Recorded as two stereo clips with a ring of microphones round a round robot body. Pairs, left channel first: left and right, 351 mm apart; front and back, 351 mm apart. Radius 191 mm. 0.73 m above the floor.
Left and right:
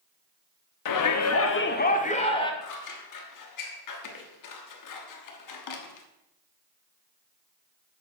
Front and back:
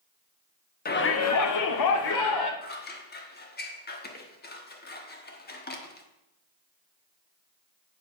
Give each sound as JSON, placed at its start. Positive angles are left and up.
{"t": 0.8, "sound": "a shout", "azimuth_deg": 65, "distance_m": 1.1}
{"t": 2.6, "sound": "scissors", "azimuth_deg": 60, "distance_m": 1.3}